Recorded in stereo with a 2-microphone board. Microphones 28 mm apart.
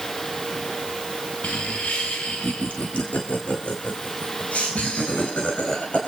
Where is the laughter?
70° left (ahead or behind), 1.2 m; by 6.0 s 60° left (ahead or behind), 4.5 m.